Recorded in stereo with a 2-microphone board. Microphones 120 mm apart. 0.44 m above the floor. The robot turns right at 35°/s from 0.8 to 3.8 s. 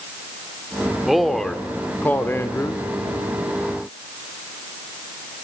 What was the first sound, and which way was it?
A man speaking, centre (ahead or behind).